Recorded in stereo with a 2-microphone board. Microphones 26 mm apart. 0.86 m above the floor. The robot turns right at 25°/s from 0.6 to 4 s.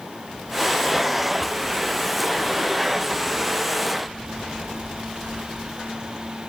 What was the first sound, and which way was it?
Only background noise.